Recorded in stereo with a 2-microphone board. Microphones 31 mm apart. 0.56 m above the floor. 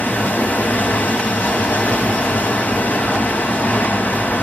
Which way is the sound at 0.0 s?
80° left.